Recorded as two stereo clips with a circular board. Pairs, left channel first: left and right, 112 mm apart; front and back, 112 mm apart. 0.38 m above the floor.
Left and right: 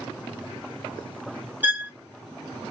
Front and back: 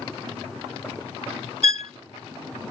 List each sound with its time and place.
1.6 s a violin: 165° right, 1.1 m